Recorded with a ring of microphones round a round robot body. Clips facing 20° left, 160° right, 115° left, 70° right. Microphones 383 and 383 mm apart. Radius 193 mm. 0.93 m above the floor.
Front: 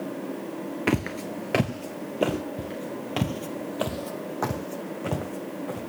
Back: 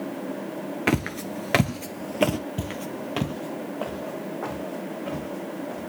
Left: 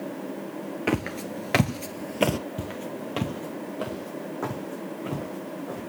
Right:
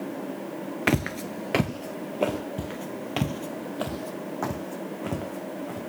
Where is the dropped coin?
I don't hear a dropped coin.